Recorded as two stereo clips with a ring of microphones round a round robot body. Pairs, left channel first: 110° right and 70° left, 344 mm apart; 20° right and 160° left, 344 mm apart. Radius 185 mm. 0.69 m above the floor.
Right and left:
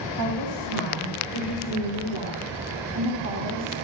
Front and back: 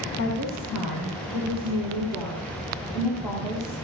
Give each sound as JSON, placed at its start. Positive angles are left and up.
{"t": 0.2, "sound": "a woman speaking", "azimuth_deg": 40, "distance_m": 7.5}